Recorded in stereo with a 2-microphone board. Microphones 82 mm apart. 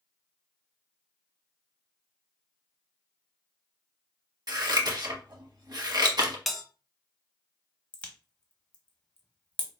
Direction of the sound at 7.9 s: 15° left (ahead or behind).